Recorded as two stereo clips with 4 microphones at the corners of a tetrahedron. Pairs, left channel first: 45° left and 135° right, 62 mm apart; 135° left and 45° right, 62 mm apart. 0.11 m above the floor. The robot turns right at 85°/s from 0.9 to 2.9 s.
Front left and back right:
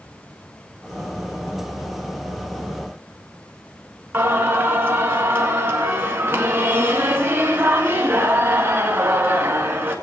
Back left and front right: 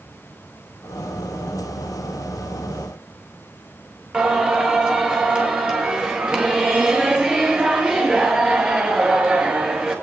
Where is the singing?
110° right, 1.8 m.